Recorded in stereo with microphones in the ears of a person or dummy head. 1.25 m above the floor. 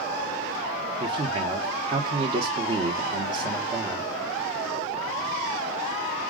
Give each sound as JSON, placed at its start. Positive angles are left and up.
{"t": 1.0, "sound": "a man speaking", "side_deg": -30, "distance_m": 0.8}